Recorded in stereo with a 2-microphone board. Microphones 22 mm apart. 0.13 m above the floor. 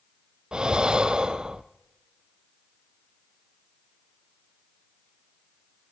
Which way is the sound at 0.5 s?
35° right (ahead or behind).